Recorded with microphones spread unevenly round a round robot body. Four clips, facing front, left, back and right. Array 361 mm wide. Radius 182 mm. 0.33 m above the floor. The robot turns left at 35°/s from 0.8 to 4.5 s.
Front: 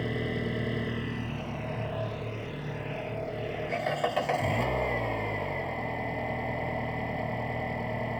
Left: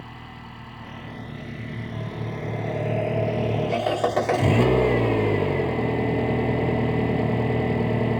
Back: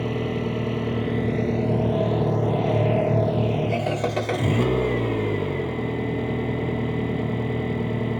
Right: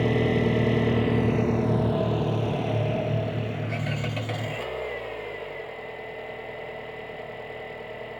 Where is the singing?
I don't hear singing.